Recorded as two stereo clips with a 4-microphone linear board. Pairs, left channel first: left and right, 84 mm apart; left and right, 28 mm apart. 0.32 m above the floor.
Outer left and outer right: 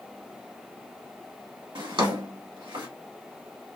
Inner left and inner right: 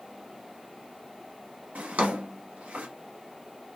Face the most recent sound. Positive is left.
turn(degrees=-70)  # may be behind; listen again after turning